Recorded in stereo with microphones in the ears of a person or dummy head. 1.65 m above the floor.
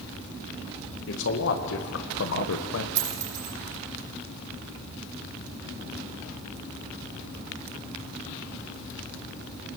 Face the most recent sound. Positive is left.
turn(degrees=-40)  # may be behind; listen again after turning